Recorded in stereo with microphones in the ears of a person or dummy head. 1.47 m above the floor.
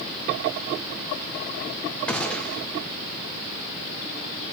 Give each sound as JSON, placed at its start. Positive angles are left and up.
{"t": 2.1, "sound": "a gunshot", "side_deg": 5, "distance_m": 0.7}